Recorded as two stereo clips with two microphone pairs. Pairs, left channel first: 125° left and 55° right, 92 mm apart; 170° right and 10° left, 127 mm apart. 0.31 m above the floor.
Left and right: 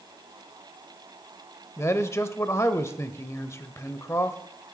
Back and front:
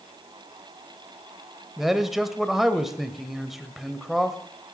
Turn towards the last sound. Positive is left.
turn(degrees=100)